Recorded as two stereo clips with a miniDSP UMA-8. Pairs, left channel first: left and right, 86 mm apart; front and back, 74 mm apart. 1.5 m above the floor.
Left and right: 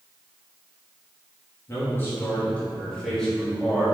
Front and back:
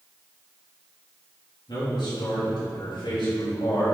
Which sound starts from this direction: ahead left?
A man speaking, at 1.7 s.